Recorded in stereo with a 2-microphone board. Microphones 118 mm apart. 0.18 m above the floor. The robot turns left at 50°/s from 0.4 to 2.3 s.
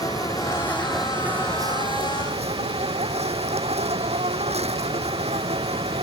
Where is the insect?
30° left; by 6.0 s 65° right.